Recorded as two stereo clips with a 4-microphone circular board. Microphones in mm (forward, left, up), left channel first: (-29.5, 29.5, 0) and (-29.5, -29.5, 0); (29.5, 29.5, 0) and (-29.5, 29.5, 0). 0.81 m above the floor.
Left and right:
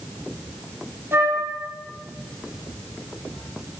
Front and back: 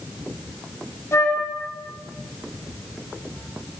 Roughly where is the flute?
Ahead right.